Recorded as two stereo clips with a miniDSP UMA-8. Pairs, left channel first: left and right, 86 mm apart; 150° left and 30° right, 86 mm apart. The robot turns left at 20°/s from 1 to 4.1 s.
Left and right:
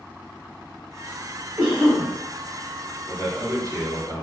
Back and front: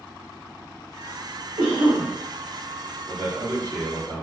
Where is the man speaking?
35° right, 1.5 m; by 4.2 s 55° right, 1.5 m.